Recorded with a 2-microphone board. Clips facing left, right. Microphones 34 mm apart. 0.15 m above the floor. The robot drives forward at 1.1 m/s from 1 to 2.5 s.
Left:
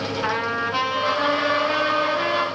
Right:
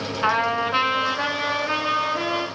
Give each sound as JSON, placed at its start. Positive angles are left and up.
{"t": 0.2, "sound": "a trumpet", "side_deg": -20, "distance_m": 0.7}